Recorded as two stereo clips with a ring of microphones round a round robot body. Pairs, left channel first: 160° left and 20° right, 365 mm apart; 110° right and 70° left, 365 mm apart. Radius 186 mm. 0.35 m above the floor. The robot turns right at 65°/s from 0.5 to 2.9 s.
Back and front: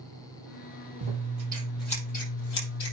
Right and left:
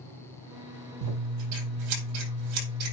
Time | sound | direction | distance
1.0 | scissors | 15° left | 5 m